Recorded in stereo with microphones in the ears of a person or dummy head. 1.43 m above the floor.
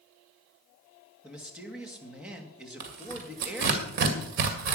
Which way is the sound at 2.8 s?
60° right (ahead or behind).